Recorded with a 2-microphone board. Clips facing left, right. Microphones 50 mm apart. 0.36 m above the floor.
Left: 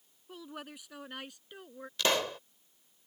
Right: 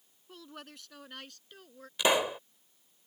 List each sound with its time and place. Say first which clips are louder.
0.3 s a woman speaking: left 3 dB; 10° left (ahead or behind); by 1.9 s 20° left (ahead or behind)
2.0 s a pop: right 3 dB; 15° right (ahead or behind)